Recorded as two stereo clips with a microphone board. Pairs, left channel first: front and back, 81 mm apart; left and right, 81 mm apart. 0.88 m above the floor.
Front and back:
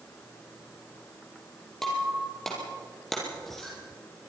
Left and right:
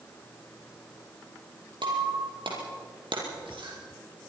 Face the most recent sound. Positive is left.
turn(degrees=-85)